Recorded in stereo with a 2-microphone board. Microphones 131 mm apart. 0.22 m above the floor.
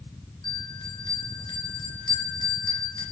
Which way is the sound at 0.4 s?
35° left (ahead or behind).